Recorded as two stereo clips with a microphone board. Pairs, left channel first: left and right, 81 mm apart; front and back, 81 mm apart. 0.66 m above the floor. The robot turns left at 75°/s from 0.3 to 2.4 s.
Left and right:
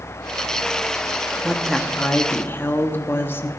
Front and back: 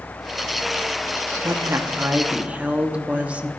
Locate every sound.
1.4 s a woman speaking: 170° right, 1.0 m; by 3.5 s 120° left, 1.0 m